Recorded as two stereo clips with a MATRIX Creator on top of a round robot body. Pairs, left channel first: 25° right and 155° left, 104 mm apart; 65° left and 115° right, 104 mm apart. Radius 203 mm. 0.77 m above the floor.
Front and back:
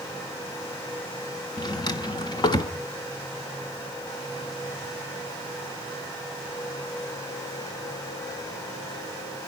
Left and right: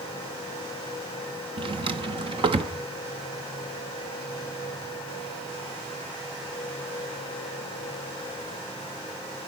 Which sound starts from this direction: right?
A drawer, at 1.6 s.